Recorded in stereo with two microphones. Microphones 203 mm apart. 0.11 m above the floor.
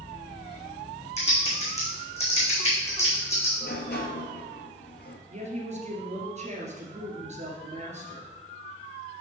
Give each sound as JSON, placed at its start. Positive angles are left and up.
{"t": 1.2, "sound": "typing on a keyboard", "side_deg": 30, "distance_m": 3.0}
{"t": 3.6, "sound": "a sliding door", "side_deg": 55, "distance_m": 1.1}
{"t": 5.3, "sound": "a woman speaking", "side_deg": -35, "distance_m": 1.8}